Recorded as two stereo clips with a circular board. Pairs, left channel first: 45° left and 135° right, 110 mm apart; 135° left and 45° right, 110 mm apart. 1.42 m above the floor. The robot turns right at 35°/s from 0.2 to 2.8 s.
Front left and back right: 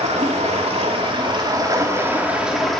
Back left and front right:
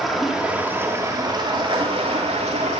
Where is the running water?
135° right, 2.5 m; by 2.8 s 40° right, 2.5 m.